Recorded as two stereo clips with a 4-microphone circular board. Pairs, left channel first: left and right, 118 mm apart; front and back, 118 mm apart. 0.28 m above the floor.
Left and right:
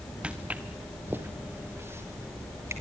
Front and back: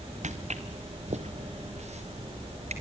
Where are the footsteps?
170° right, 1.5 m; by 2.7 s 160° right, 4 m.